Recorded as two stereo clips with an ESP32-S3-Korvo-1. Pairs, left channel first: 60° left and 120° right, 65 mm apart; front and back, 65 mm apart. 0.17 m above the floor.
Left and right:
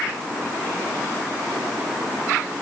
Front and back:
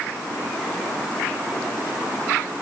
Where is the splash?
I don't hear a splash.